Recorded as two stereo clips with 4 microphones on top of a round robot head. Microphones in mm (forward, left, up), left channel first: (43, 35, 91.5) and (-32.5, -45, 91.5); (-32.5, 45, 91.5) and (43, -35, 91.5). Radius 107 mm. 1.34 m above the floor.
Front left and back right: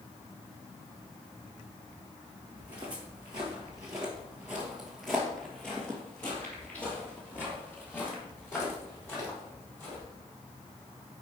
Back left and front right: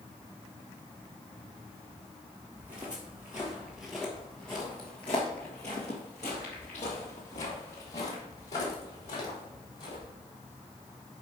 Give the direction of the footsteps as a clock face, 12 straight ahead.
3 o'clock.